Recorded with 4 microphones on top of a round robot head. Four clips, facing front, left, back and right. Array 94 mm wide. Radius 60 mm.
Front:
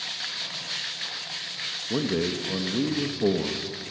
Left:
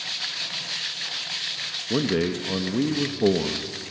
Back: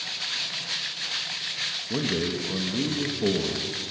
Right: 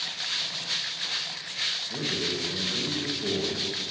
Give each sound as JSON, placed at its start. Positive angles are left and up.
{"t": 1.9, "sound": "a man speaking", "azimuth_deg": 70, "distance_m": 1.6}